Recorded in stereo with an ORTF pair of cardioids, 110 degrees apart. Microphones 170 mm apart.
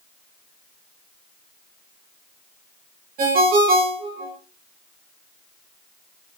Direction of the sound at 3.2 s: 55° right.